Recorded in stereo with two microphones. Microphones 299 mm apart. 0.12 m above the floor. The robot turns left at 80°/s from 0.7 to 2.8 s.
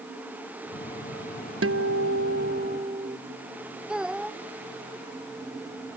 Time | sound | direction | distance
1.6 | a guitar | 60° right | ?
3.9 | a child speaking | 5° right (ahead or behind) | ?